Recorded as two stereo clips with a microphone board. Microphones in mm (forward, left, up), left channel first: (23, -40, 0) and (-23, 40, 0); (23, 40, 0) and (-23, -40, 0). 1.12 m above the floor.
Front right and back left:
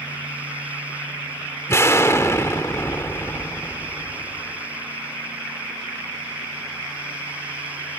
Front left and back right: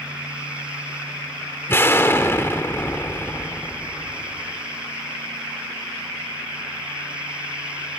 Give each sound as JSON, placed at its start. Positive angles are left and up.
{"t": 1.7, "sound": "an explosion", "azimuth_deg": 0, "distance_m": 1.4}